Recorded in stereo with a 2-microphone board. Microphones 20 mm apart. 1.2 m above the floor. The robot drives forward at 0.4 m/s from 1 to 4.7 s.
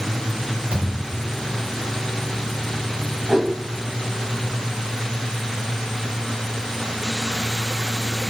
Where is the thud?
70° right (ahead or behind), 3.5 m; by 1.3 s 65° right (ahead or behind), 3.5 m.